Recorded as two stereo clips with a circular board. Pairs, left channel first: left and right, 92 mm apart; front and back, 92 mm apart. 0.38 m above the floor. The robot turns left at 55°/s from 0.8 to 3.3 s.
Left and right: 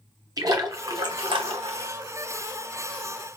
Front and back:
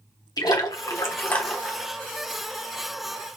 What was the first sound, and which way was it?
A splash, 45° right.